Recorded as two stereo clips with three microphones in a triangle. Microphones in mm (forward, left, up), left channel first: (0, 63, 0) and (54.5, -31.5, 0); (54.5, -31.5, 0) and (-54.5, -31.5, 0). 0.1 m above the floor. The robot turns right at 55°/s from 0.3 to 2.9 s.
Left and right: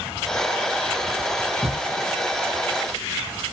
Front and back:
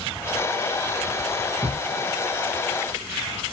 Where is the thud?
150° right, 1.5 m; by 1.8 s 140° right, 1.5 m.